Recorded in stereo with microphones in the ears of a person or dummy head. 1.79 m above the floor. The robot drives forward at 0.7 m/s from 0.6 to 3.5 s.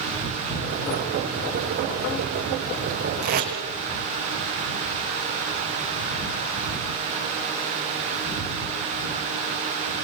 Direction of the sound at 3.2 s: 50° right (ahead or behind).